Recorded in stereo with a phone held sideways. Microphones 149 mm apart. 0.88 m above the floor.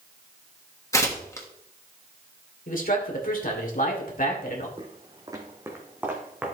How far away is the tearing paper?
About 1.5 m.